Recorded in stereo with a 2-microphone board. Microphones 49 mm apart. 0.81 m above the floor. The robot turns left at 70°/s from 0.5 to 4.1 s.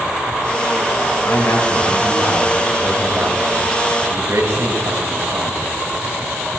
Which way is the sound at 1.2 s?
95° left.